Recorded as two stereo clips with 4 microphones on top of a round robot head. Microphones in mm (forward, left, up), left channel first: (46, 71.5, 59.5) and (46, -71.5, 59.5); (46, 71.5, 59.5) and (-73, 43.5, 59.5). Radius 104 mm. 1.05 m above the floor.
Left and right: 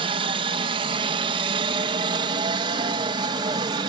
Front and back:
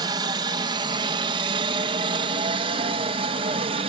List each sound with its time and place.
0.0 s a helicopter: 125° right; by 3.9 s 140° right